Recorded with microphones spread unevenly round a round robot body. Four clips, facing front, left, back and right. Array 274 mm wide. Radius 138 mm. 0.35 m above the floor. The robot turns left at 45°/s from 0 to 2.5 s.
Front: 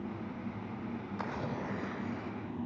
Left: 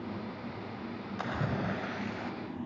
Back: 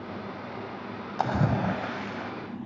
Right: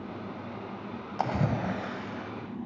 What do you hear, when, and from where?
1.2 s a splash: 150° right, 1.4 m; by 2.3 s 160° left, 1.4 m